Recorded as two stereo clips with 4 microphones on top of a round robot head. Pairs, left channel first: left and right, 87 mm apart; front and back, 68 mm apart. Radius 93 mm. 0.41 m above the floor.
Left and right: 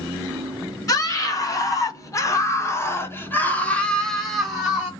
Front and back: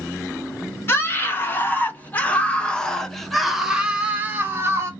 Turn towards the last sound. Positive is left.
turn(degrees=-165)